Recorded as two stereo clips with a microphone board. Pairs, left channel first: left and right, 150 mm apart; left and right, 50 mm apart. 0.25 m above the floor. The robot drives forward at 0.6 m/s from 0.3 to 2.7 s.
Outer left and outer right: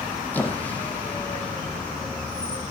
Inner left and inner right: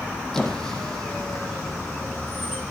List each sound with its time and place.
0.3 s a squeak: 10° left (ahead or behind), 2.0 m; by 2.6 s 5° left (ahead or behind), 3.5 m